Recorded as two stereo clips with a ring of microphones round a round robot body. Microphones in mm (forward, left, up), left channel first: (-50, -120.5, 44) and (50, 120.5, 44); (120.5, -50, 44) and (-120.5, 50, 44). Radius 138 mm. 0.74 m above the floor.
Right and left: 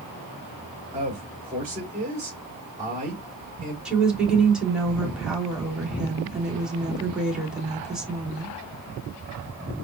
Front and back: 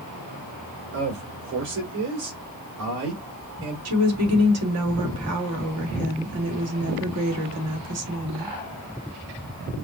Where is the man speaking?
135° left, 3 m.